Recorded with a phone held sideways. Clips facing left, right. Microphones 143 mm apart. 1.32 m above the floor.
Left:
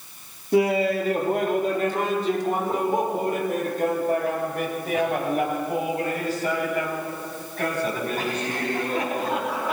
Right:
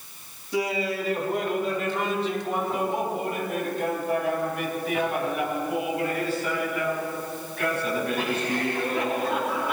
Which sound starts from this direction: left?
Laughter, at 0.5 s.